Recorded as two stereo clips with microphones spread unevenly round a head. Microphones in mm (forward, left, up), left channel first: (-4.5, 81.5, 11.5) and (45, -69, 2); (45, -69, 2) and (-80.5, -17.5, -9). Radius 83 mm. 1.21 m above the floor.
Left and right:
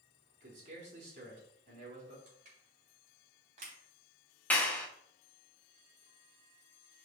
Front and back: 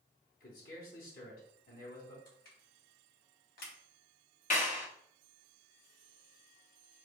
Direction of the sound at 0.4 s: 30° right.